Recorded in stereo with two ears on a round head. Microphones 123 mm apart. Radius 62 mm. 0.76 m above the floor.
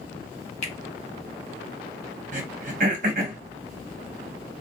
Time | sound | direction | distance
0.6 | a finger snap | 45° left (ahead or behind) | 0.7 m
2.3 | throat clearing | 55° right (ahead or behind) | 0.7 m